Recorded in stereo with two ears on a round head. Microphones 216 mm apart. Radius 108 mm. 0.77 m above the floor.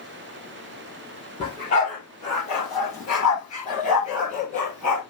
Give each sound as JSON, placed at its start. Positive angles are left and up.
{"t": 1.4, "sound": "a dog barking", "side_deg": 25, "distance_m": 6.5}